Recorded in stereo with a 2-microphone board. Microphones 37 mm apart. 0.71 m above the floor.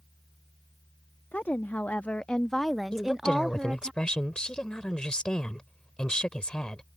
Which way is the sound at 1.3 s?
55° left (ahead or behind).